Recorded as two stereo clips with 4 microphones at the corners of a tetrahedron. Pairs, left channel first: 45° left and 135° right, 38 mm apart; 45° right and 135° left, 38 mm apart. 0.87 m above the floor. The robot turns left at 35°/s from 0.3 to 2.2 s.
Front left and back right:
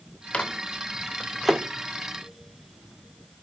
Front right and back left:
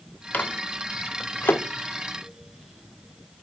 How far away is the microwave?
About 0.9 m.